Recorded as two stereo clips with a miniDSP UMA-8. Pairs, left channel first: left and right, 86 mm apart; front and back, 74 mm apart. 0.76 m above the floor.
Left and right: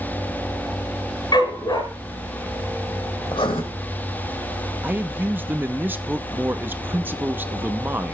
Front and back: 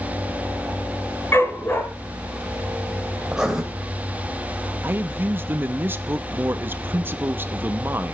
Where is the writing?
100° left, 2 m.